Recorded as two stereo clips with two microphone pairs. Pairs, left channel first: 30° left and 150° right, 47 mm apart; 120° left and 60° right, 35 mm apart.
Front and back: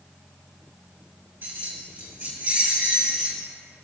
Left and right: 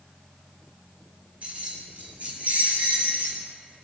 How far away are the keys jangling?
About 5.5 m.